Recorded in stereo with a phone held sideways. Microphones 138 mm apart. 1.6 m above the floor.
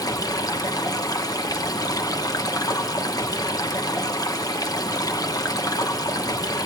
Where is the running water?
25° left (ahead or behind), 0.8 m.